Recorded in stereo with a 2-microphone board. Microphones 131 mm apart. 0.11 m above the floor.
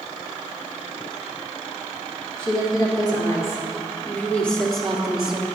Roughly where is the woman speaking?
Left.